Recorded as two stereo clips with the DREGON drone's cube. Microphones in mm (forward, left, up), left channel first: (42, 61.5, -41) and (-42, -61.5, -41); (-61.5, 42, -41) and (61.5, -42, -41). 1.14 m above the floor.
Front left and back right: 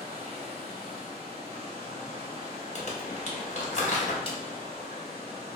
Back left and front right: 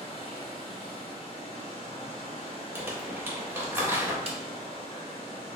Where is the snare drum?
5° left, 0.6 m.